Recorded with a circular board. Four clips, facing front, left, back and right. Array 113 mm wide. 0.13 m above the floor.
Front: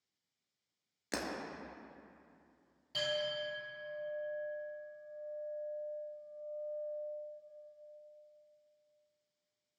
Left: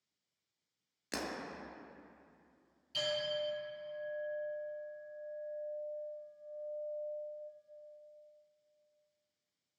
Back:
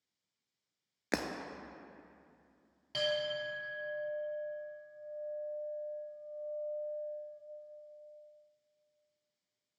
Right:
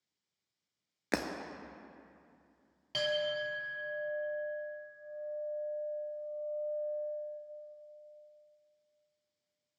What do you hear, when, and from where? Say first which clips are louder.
1.1 s breaking glass: right 7 dB, back 5 dB; 125° right, 0.7 m
2.9 s a clink: right 3 dB, back 3 dB; 115° right, 2.5 m